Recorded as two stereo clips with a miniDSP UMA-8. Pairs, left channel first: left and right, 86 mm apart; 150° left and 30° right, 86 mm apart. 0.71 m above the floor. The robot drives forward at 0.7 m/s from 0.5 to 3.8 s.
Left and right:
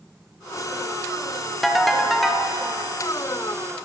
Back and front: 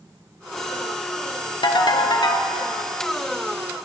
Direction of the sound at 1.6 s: Straight behind.